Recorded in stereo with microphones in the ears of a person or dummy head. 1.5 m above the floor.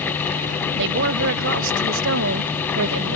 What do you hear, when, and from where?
0.8 s a woman speaking: 70° right (ahead or behind); by 3.2 s 85° right